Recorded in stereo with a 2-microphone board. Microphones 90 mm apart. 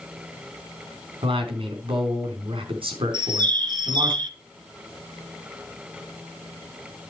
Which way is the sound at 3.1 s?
55° right (ahead or behind).